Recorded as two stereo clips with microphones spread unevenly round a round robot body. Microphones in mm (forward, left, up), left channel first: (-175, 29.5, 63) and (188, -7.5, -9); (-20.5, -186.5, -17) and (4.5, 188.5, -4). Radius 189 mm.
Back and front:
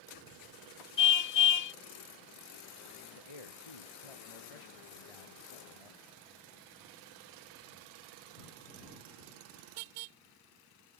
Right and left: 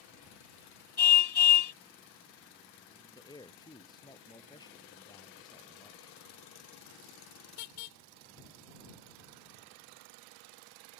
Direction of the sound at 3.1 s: 175° right.